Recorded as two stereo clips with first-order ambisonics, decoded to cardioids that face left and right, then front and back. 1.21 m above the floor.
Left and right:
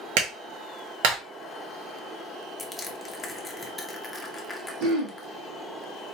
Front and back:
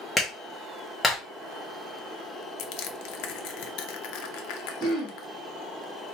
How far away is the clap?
About 1.4 m.